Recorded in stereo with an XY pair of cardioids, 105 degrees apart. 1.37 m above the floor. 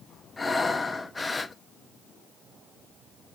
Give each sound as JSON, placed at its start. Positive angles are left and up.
{"t": 0.4, "sound": "breathing", "azimuth_deg": 20, "distance_m": 1.1}